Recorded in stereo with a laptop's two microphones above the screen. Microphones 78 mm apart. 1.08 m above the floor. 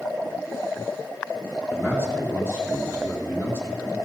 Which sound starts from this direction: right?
A man speaking, at 1.7 s.